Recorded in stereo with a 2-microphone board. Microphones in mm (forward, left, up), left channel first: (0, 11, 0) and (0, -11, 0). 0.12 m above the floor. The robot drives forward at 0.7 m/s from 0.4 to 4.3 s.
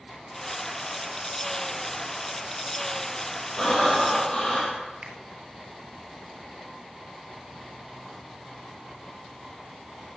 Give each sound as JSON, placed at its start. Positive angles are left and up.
{"t": 3.6, "sound": "breathing", "side_deg": 20, "distance_m": 3.0}
{"t": 5.0, "sound": "a finger snap", "side_deg": -30, "distance_m": 1.6}